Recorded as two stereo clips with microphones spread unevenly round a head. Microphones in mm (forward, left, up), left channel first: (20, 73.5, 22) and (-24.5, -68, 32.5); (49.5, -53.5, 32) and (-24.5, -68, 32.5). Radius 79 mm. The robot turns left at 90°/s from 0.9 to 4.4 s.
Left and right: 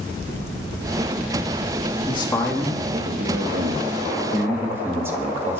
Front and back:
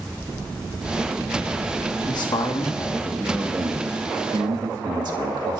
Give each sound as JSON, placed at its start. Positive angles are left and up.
{"t": 2.1, "sound": "a man speaking", "azimuth_deg": 30, "distance_m": 1.9}